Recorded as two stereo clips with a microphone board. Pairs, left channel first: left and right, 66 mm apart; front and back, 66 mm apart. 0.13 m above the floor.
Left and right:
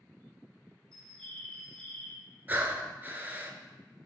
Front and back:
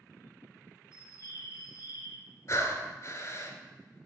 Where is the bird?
10° left, 2.0 m.